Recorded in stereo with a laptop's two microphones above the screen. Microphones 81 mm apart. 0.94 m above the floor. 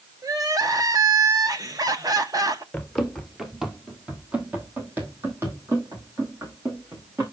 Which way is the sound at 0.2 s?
50° right (ahead or behind).